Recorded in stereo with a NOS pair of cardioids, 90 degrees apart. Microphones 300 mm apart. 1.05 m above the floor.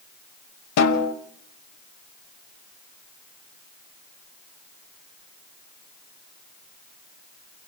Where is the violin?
No violin in this recording.